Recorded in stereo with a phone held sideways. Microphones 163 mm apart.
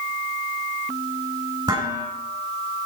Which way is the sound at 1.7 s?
25° right (ahead or behind).